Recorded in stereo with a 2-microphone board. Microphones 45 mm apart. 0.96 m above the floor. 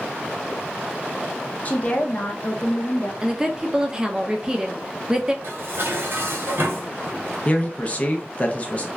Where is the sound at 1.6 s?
35° left (ahead or behind), 0.7 m.